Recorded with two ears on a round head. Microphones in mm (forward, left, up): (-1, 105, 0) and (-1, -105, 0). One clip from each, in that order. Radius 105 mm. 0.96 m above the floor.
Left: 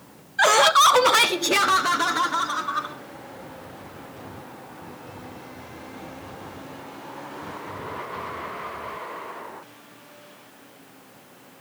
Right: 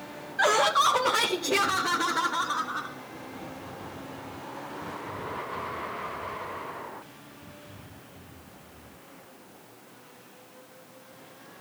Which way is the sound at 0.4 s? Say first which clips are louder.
Left 6 dB; 20° left (ahead or behind).